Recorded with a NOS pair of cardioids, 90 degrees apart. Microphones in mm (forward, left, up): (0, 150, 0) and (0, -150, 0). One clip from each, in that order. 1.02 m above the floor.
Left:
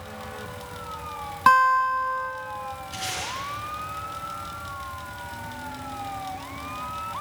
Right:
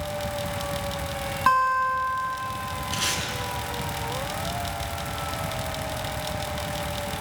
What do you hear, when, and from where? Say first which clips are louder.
0.0 s a fan: right 7 dB; 55° right, 0.7 m
1.5 s a guitar: left 3 dB; 25° left, 3 m
2.9 s tape being pulled: right 5 dB; 60° right, 8.5 m